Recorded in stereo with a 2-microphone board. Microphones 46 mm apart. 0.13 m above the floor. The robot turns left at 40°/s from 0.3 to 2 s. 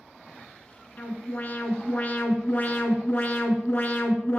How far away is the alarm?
About 1.0 m.